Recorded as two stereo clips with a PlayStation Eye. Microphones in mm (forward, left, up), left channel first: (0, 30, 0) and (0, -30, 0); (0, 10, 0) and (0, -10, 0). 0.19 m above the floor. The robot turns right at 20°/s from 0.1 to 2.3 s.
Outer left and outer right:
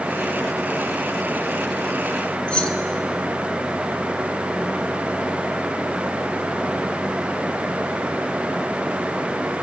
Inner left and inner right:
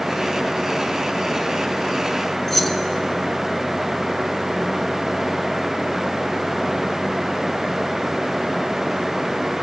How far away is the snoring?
No snoring in this recording.